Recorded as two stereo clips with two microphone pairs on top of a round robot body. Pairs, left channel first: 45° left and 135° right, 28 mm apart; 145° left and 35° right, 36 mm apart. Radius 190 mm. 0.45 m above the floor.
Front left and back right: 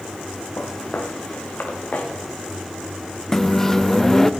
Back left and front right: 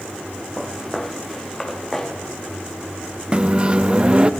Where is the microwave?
15° right, 0.8 m.